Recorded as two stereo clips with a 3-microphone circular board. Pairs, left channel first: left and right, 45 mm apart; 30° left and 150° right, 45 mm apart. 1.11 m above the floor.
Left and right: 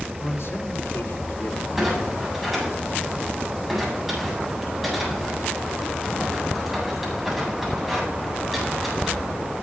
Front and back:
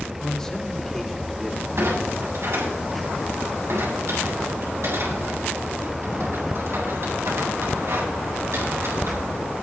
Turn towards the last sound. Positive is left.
turn(degrees=-175)